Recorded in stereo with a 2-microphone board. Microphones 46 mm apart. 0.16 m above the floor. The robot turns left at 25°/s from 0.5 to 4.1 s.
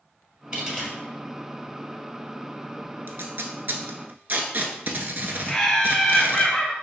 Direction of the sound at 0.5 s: 25° right (ahead or behind).